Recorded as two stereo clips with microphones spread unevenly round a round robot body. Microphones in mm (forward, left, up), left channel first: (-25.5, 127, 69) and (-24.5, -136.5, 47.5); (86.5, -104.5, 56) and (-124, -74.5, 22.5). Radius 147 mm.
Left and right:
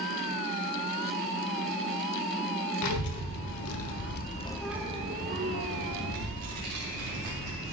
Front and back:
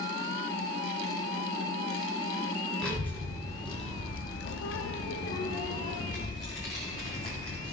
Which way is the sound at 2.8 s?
80° left.